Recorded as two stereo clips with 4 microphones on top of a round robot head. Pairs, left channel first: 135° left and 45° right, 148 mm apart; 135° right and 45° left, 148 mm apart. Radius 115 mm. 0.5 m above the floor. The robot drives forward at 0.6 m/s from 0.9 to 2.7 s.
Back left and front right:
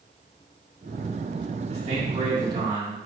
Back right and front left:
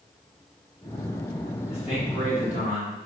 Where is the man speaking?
90° right, 1.9 m; by 3.0 s 110° right, 2.0 m.